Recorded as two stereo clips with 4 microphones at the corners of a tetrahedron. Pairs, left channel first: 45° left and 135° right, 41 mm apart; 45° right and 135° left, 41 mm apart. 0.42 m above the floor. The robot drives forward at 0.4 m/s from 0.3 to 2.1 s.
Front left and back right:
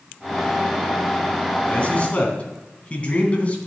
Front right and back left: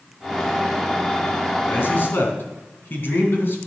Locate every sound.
1.7 s a man speaking: 15° right, 3 m